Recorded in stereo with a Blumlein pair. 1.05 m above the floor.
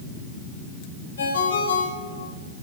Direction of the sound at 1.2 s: 70° left.